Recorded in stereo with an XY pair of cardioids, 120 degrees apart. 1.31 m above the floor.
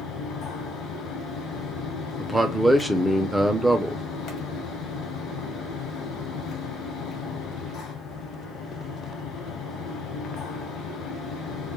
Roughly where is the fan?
Ahead left.